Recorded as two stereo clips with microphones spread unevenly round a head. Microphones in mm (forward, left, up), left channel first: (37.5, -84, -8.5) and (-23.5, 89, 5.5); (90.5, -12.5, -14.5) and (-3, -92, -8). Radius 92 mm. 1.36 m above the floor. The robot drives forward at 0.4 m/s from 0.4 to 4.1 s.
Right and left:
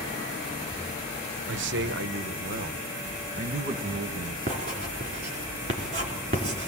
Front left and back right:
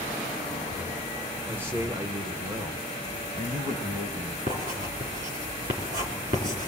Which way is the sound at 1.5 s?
140° left.